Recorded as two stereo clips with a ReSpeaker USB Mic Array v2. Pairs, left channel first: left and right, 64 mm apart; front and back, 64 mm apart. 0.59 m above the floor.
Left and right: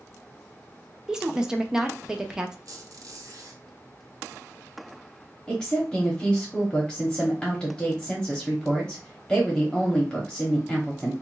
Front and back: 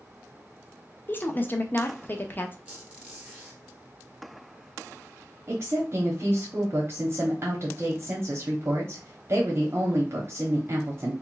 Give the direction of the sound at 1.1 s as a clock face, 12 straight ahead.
1 o'clock.